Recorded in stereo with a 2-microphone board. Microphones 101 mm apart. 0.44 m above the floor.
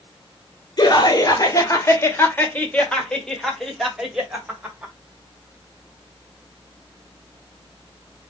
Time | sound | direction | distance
0.8 | laughter | 45° left (ahead or behind) | 1.6 m